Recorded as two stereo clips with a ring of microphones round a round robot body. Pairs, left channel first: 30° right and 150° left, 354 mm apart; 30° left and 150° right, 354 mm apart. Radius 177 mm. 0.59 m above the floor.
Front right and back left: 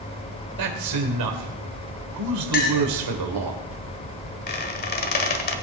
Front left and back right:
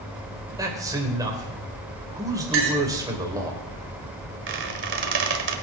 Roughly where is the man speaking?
Behind left.